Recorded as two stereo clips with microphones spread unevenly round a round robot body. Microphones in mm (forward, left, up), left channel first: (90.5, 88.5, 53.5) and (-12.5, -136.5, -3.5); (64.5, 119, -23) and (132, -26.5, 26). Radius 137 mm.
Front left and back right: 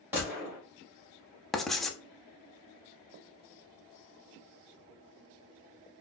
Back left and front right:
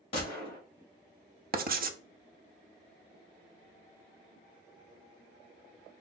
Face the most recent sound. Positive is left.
turn(degrees=-25)